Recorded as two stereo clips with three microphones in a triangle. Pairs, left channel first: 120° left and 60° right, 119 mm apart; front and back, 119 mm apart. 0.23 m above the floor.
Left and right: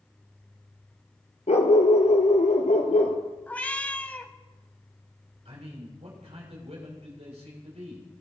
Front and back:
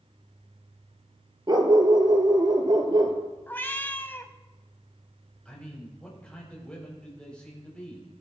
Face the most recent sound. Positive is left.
turn(degrees=-80)